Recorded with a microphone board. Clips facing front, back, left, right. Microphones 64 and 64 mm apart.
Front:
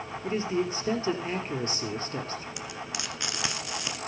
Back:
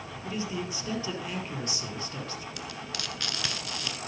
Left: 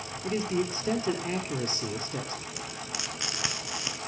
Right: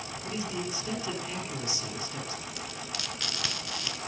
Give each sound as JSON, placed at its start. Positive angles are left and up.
{"t": 0.2, "sound": "a man speaking", "azimuth_deg": 50, "distance_m": 3.5}
{"t": 2.6, "sound": "frying", "azimuth_deg": 45, "distance_m": 1.4}